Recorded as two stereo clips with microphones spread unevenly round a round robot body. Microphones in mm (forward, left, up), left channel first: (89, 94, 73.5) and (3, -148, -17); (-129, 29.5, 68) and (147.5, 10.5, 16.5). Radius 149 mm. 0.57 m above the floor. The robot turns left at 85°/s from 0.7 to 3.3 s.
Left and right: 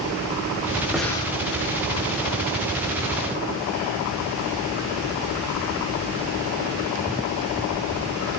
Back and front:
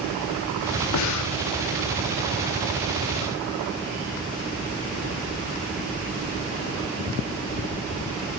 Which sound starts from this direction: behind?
Breathing, at 0.9 s.